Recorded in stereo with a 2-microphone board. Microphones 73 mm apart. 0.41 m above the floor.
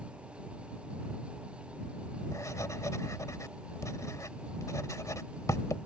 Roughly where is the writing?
Left.